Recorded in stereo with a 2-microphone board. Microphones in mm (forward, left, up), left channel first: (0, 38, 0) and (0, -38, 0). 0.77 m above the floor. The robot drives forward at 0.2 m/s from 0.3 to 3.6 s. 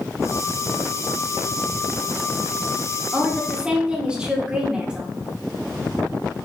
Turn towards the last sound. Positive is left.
turn(degrees=-10)  # may be behind; listen again after turning